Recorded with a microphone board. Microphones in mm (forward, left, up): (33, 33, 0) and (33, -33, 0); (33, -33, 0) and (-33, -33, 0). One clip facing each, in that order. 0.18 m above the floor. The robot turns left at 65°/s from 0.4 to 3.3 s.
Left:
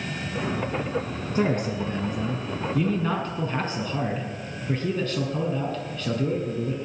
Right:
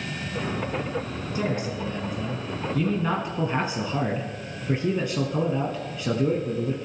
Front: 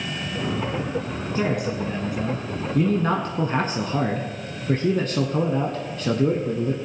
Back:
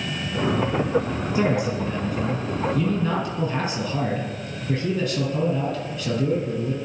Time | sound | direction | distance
1.4 | a man speaking | 105° left | 1.5 m